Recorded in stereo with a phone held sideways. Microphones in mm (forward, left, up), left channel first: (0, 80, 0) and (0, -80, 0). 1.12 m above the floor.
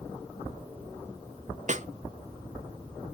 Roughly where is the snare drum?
Right.